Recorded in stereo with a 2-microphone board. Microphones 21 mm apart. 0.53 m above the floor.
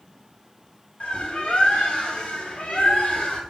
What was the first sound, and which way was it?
A bird, 70° left (ahead or behind).